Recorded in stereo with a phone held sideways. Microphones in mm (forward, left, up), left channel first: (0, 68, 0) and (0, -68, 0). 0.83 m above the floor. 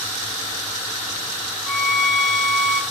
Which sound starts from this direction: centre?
A violin, at 1.7 s.